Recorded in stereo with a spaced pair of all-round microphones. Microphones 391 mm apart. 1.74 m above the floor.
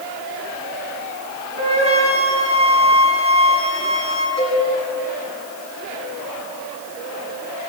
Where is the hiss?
I don't hear a hiss.